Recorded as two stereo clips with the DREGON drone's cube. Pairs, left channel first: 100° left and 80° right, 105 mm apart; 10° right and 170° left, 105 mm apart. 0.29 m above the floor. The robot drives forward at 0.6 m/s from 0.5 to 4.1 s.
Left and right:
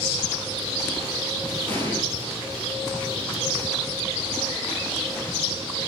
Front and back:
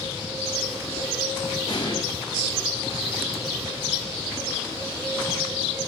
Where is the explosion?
30° left, 3 m; by 2.0 s 35° left, 3 m.